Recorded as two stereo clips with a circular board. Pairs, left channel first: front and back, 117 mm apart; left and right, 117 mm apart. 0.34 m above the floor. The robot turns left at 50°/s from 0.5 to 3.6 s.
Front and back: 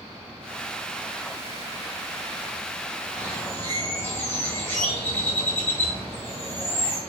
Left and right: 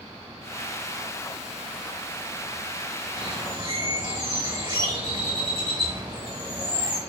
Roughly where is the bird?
Ahead right.